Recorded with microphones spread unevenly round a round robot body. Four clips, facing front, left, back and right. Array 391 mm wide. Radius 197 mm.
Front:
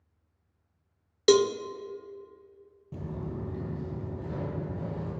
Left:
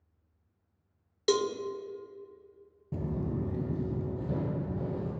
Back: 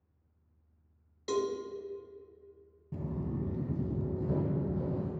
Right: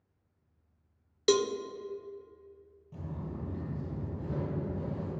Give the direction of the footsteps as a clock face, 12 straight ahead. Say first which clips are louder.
Left 8 dB, even; 9 o'clock.